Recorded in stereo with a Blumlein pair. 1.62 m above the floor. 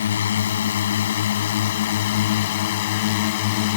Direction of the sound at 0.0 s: 65° left.